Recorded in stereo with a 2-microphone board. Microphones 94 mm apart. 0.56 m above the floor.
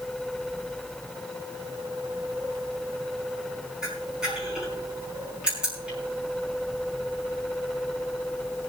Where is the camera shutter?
10° right (ahead or behind), 4.5 m.